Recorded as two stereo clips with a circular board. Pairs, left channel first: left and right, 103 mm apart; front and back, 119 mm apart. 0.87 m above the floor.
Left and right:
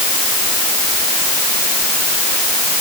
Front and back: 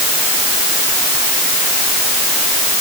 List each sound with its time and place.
Only background noise.